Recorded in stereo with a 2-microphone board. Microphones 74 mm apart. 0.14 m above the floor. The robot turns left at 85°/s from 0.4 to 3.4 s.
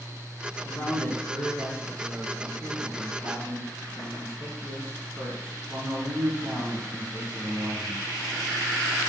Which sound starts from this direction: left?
A man speaking, at 0.7 s.